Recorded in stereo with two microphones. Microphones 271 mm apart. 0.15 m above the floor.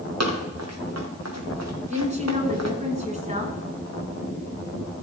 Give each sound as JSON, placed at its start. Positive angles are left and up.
{"t": 0.2, "sound": "running footsteps", "side_deg": -65, "distance_m": 3.5}
{"t": 1.9, "sound": "a woman speaking", "side_deg": -25, "distance_m": 1.8}